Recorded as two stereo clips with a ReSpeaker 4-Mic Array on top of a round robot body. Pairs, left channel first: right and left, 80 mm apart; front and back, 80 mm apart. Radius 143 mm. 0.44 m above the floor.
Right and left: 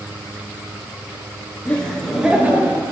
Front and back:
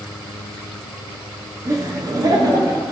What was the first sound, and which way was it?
Laughter, 150° right.